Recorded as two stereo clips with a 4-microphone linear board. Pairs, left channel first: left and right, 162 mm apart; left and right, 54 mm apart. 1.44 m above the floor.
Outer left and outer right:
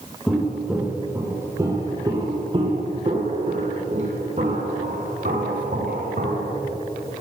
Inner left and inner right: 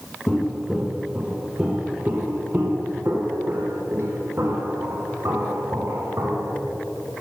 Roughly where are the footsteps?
Centre.